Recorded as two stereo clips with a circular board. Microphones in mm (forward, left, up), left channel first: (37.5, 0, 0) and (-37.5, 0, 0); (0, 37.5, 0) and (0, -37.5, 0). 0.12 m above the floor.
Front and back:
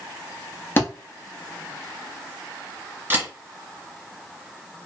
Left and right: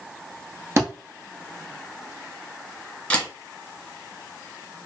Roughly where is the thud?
Ahead right.